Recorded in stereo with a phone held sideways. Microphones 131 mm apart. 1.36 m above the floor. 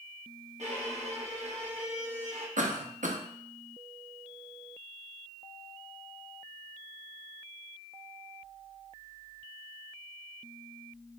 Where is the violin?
60° right (ahead or behind), 1.6 m.